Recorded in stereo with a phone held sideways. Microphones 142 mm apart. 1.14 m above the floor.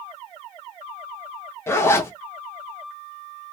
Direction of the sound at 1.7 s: 15° left (ahead or behind).